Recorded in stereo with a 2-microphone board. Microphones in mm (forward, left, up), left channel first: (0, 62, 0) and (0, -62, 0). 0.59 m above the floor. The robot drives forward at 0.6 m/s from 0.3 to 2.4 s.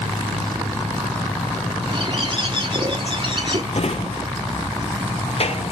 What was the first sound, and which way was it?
A bird, 45° right (ahead or behind).